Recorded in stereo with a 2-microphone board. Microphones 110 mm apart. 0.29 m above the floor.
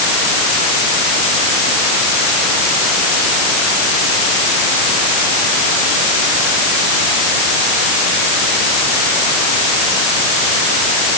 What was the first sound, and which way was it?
Only background noise.